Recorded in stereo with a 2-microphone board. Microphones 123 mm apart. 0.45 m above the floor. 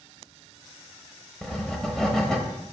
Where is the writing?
5° left (ahead or behind), 1.0 m.